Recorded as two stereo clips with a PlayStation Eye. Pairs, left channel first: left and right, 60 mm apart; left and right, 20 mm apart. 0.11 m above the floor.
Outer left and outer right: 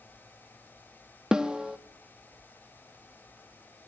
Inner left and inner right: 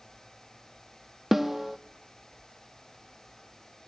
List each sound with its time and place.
1.3 s a snare drum: 10° right (ahead or behind), 0.8 m